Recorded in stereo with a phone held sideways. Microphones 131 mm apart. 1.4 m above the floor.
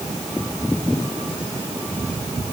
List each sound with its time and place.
Only background noise.